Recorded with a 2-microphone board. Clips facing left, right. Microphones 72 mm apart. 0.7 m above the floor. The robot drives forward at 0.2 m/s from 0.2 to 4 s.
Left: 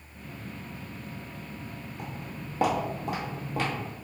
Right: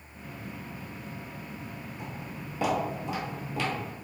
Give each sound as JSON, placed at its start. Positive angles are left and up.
{"t": 2.0, "sound": "footsteps", "side_deg": 55, "distance_m": 1.2}